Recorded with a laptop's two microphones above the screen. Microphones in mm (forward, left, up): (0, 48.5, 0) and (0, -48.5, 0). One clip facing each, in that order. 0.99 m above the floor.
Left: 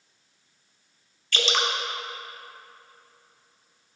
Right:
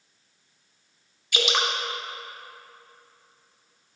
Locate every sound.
1.3 s dripping: 15° right (ahead or behind), 0.7 m